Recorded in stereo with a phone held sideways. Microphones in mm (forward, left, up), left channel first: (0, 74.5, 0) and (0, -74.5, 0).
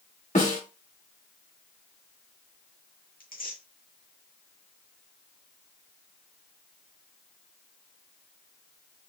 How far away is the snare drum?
About 2 m.